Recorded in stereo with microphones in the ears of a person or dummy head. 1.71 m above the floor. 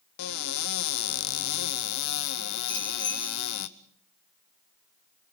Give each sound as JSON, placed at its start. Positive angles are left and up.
{"t": 0.2, "sound": "a cupboard door", "side_deg": 60, "distance_m": 0.8}
{"t": 2.7, "sound": "a bicycle bell", "side_deg": 80, "distance_m": 6.5}